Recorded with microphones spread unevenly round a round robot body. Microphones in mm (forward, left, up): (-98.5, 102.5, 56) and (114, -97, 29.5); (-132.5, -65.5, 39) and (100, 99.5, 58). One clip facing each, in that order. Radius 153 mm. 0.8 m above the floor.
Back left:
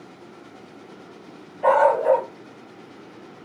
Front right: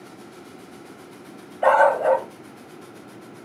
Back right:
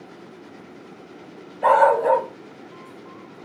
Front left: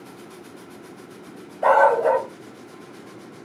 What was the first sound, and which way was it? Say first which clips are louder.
A dog barking: even, even; 55° right.